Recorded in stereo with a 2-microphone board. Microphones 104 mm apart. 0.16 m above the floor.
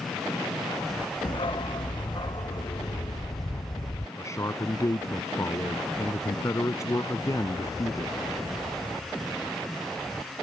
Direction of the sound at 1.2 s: 55° left (ahead or behind).